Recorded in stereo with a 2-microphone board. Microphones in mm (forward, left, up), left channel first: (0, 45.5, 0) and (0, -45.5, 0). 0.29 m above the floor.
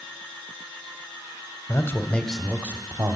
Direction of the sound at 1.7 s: 35° left (ahead or behind).